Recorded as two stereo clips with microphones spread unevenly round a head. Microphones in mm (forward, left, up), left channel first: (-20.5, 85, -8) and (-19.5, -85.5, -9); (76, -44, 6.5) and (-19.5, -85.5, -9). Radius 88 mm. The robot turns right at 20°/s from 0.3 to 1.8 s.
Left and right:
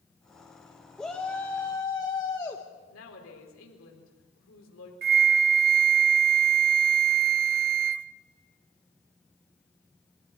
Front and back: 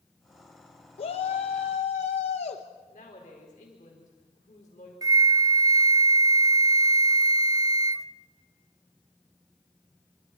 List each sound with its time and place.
1.0 s a shout: 5° left, 1.2 m; by 2.6 s 20° left, 1.2 m
2.9 s a woman speaking: 75° left, 4.5 m
5.0 s a flute: 110° right, 0.5 m